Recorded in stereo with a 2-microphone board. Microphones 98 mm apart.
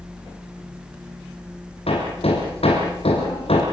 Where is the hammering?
80° left, 7.5 m.